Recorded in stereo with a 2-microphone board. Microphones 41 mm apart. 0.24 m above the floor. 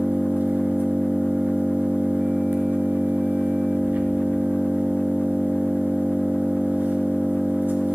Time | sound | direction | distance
0.0 | an engine running | 55° right (ahead or behind) | 1.5 m